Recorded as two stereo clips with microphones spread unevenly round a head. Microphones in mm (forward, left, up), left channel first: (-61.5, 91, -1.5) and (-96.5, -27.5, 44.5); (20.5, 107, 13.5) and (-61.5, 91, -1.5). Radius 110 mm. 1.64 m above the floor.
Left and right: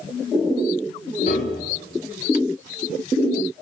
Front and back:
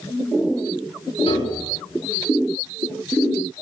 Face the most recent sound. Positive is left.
turn(degrees=15)